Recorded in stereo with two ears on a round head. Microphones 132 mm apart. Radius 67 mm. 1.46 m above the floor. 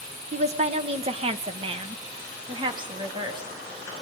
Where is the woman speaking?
50° right (ahead or behind), 1.5 m; by 3.5 s 30° right (ahead or behind), 3.5 m.